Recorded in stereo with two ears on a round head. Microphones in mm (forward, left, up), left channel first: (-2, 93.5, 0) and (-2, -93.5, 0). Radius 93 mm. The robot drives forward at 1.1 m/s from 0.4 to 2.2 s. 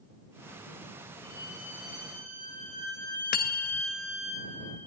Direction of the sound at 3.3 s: 45° left (ahead or behind).